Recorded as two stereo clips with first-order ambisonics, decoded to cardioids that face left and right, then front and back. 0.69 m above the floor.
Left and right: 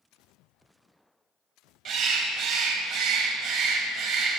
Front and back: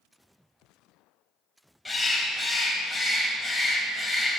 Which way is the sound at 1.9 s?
85° right.